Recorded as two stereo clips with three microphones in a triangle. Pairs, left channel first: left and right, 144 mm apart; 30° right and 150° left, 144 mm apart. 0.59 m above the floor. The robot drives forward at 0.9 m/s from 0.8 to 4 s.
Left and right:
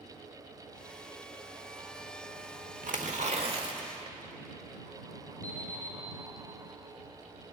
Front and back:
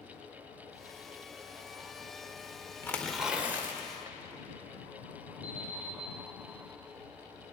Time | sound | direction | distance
2.8 | tearing paper | 105° right | 1.0 m
5.4 | an alarm clock | 90° right | 4.5 m